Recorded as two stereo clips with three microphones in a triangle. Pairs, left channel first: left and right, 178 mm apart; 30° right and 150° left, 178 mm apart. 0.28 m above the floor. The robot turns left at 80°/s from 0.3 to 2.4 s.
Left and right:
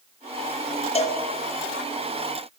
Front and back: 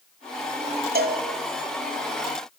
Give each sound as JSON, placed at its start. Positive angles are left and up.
{"t": 0.9, "sound": "a cowbell", "azimuth_deg": 140, "distance_m": 1.7}